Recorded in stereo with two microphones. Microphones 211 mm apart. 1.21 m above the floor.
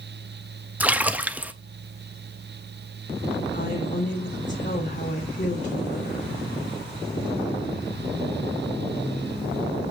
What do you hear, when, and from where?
0.8 s a splash: 5° right (ahead or behind), 0.7 m
3.5 s a woman speaking: 40° left (ahead or behind), 3 m